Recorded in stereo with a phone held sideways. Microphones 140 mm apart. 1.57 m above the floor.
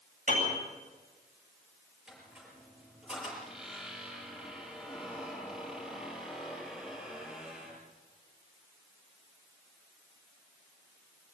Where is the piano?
65° right (ahead or behind), 8.5 m.